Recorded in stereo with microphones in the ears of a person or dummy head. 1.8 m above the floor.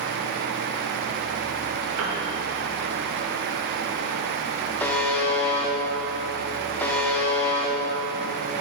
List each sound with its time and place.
2.0 s a piano: 70° right (ahead or behind), 1.1 m
4.8 s a buzzer: 15° left (ahead or behind), 0.8 m